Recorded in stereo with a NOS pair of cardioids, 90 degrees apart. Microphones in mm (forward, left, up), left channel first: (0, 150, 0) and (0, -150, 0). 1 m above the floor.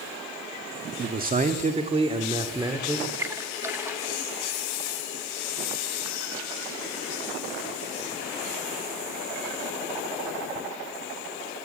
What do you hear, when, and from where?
1.0 s a man speaking: 35° right, 1.7 m; by 3.1 s 10° right, 2.5 m
3.2 s a splash: 10° right, 2 m